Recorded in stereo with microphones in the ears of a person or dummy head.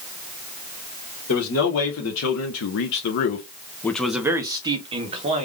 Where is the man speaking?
80° left, 1.2 m; by 5.5 s 40° right (ahead or behind), 1.1 m.